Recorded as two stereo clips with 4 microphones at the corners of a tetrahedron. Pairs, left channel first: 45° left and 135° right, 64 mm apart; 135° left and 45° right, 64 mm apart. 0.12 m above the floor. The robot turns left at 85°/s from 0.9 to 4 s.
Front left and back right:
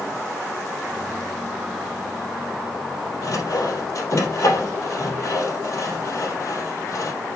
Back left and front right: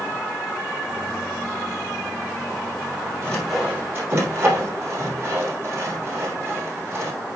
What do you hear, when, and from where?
3.2 s sawing: 70° left, 3.5 m; by 7.1 s 5° left, 3.5 m